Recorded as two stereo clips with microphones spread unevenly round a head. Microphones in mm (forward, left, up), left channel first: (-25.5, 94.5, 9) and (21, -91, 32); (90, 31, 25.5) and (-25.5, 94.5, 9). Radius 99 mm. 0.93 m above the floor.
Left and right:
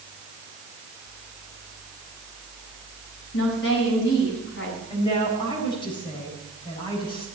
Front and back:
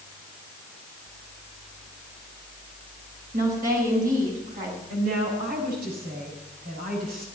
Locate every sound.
3.3 s a woman speaking: 135° left, 6 m
4.9 s a woman speaking: 170° left, 7 m